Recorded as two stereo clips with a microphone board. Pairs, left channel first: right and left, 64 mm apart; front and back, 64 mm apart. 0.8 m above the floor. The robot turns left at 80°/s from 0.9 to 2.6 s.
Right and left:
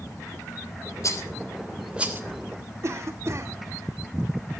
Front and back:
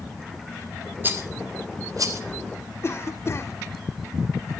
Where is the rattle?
120° right, 1.6 m; by 2.2 s 145° left, 1.6 m.